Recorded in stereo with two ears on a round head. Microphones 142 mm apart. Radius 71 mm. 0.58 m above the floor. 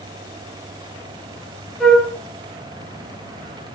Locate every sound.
1.8 s a flute: centre (ahead or behind), 5 m